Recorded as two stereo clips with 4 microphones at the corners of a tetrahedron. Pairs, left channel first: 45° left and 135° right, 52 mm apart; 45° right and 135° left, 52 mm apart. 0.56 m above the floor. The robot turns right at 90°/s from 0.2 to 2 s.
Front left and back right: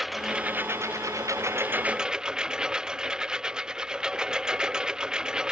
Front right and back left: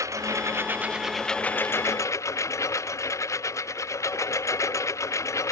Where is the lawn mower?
140° left; by 5.5 s 60° right.